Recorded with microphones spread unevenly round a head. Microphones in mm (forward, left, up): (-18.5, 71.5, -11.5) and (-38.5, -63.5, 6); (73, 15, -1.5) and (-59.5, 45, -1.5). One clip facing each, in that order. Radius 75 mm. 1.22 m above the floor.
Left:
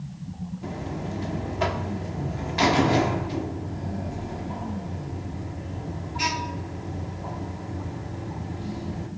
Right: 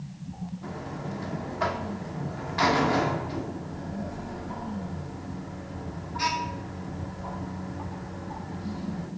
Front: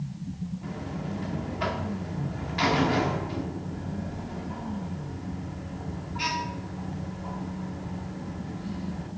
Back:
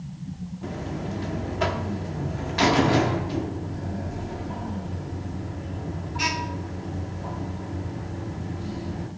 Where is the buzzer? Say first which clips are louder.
Left 5 dB, back 7 dB; 145° left, 1.1 m.